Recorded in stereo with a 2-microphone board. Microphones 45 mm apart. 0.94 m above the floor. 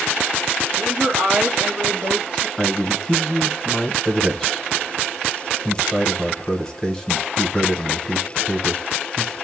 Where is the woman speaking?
60° right (ahead or behind), 1.1 m; by 2.5 s 10° right (ahead or behind), 1.9 m.